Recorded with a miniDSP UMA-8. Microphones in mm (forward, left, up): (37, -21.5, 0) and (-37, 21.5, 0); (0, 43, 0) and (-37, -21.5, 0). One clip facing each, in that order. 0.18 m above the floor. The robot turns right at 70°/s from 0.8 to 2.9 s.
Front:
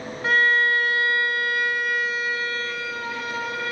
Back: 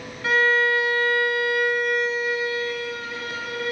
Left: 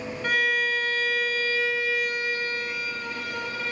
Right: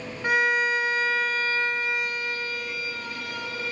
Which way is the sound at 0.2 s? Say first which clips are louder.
Even, right 2 dB; 65° right.